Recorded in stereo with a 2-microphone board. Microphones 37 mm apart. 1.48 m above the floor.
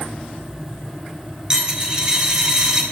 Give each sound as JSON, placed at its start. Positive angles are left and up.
{"t": 1.5, "sound": "a dropped coin", "side_deg": -25, "distance_m": 1.2}